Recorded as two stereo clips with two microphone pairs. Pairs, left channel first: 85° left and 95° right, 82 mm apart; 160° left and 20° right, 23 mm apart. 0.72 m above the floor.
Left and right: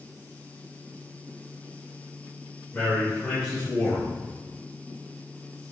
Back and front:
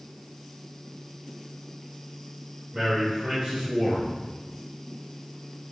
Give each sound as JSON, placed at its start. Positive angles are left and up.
{"t": 2.7, "sound": "a man speaking", "azimuth_deg": 25, "distance_m": 1.5}